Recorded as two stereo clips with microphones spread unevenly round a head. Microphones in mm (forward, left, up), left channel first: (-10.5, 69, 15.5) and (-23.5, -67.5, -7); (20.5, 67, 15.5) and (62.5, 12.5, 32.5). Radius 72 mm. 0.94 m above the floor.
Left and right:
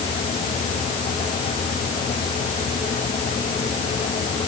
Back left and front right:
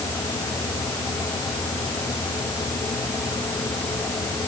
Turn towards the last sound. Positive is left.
No sound to turn to.